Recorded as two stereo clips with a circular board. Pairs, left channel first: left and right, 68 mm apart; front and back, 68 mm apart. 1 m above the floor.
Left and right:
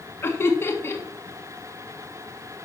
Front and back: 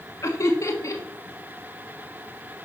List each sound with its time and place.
0.2 s laughter: 40° left, 1.6 m